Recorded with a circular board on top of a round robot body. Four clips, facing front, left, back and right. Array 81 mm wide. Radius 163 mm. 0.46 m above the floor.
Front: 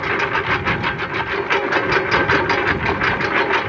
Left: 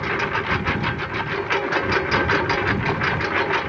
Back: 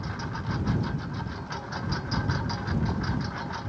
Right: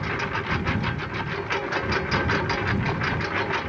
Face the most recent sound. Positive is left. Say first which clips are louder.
# left 5 dB, front 15 dB
turn(degrees=15)